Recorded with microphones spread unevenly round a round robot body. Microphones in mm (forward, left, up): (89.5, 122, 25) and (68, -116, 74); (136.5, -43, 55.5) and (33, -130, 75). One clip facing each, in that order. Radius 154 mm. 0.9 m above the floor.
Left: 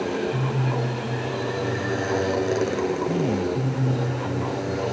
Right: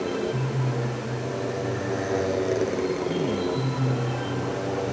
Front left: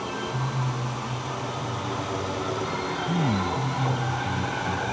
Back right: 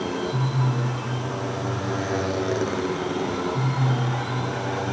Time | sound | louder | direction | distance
0.0 | a motorcycle | left 1 dB, back right 4 dB | 170° left | ?
3.1 | a man speaking | left 2 dB, even | 10° left | ?